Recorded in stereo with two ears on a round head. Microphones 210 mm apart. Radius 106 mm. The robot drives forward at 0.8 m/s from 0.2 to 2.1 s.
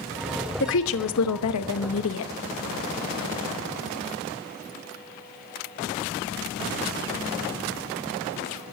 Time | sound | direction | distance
0.6 | a woman speaking | 50° left (ahead or behind) | 1.2 m